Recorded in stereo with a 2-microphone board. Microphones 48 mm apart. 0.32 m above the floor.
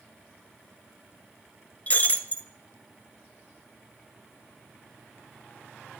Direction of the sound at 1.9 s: 30° left (ahead or behind).